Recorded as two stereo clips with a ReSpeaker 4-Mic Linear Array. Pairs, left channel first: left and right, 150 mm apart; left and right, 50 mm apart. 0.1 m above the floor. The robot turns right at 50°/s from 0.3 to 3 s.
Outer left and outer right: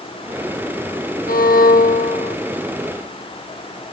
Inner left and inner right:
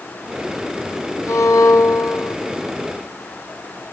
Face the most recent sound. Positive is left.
turn(degrees=160)